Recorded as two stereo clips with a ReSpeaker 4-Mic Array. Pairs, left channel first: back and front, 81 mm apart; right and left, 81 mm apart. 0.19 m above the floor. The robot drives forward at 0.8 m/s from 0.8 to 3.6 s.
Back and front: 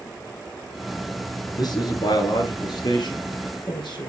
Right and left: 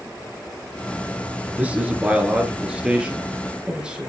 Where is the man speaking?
160° left, 2.5 m; by 4.1 s 170° left, 4 m.